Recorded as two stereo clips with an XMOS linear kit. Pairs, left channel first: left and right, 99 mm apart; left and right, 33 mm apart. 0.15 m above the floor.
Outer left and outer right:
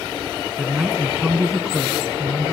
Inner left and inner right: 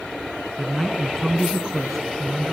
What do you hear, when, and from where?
0.6 s a man speaking: 5° right (ahead or behind), 1.2 m